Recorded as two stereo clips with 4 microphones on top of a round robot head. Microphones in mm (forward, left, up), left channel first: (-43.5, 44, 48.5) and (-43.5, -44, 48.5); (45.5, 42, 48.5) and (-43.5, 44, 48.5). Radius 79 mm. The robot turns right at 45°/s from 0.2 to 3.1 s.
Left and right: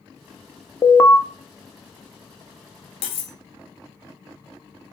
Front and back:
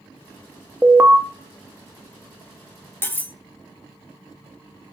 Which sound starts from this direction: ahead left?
Cutlery clinking, at 3.0 s.